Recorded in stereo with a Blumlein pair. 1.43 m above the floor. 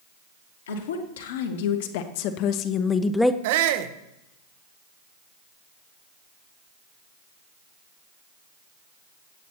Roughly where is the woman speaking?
Ahead left.